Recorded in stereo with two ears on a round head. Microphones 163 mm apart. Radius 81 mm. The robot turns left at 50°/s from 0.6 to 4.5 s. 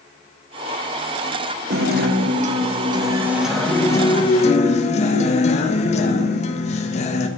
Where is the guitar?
90° right, 1.4 m; by 7.3 s 130° left, 1.4 m.